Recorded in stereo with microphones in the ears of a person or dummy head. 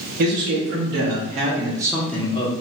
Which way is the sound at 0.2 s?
50° right (ahead or behind).